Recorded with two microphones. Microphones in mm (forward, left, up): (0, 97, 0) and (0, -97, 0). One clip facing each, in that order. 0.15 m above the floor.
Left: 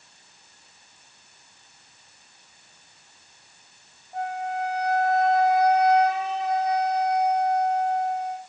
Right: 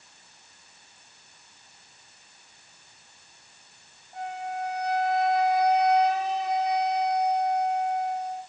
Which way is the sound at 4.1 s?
30° left (ahead or behind).